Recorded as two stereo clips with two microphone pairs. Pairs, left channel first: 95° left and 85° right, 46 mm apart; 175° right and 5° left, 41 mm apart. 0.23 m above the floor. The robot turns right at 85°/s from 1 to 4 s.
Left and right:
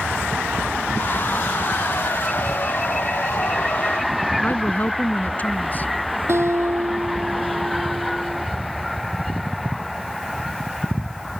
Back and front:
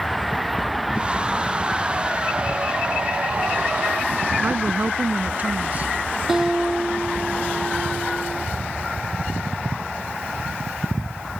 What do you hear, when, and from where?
4.4 s a woman speaking: 50° left
6.3 s a guitar: 75° right